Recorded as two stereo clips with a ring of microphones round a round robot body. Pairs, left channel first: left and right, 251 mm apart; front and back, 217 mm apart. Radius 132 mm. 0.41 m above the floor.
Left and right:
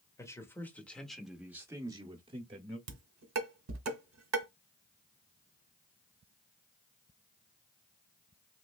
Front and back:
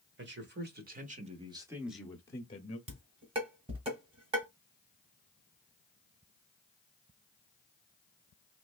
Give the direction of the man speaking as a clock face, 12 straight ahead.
6 o'clock.